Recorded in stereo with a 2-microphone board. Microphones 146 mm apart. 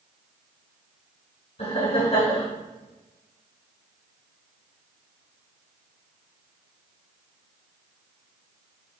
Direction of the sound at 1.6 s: 45° left (ahead or behind).